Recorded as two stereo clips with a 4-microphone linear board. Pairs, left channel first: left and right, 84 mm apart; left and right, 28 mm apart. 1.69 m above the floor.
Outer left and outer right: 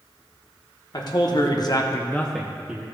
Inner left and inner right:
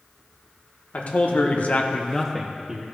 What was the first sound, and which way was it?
A man speaking, 50° left (ahead or behind).